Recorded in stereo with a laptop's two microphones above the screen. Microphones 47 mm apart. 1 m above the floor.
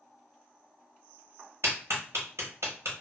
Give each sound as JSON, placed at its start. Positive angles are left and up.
{"t": 1.6, "sound": "a clap", "side_deg": -70, "distance_m": 1.1}